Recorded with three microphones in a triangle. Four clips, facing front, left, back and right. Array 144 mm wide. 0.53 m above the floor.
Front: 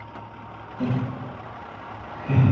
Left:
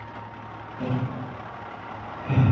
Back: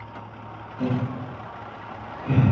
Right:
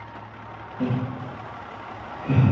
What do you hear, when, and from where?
0.8 s laughter: 80° right, 0.6 m; by 2.5 s 170° right, 1.0 m